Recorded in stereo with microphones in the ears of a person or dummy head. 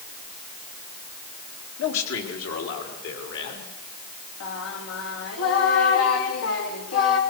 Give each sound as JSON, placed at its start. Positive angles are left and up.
{"t": 1.8, "sound": "a man speaking", "side_deg": 85, "distance_m": 3.5}
{"t": 4.4, "sound": "singing", "side_deg": 85, "distance_m": 3.5}